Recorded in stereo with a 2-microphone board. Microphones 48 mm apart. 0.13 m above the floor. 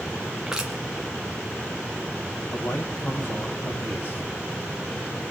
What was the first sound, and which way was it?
Crushing, 15° right (ahead or behind).